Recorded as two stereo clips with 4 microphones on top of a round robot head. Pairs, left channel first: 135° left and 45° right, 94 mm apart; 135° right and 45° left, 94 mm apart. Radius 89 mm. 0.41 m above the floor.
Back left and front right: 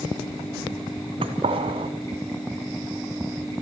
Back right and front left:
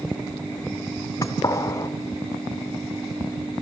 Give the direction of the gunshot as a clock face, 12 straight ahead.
3 o'clock.